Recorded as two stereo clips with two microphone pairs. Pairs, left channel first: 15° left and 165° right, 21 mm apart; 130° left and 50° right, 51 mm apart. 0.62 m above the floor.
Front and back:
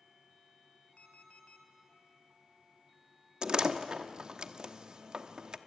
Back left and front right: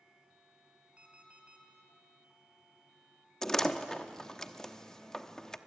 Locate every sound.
1.0 s an alarm clock: 20° left, 3 m
3.4 s a door slam: 150° right, 0.9 m